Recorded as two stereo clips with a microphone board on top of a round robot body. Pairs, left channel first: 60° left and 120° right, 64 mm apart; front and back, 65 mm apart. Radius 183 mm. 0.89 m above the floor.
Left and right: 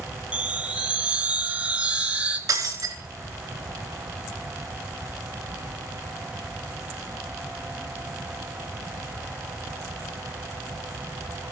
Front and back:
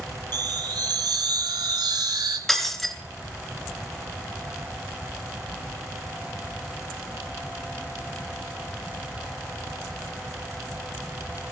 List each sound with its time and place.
0.3 s a chime: 170° left, 2.0 m
2.5 s breaking glass: 85° right, 3.5 m